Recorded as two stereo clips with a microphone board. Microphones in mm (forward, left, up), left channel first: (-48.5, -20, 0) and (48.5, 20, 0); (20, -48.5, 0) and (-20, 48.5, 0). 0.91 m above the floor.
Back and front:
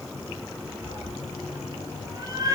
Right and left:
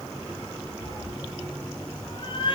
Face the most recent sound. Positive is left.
turn(degrees=-30)